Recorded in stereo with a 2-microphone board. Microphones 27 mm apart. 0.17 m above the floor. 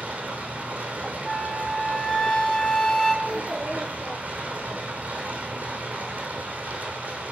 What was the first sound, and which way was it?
Running water, 75° right (ahead or behind).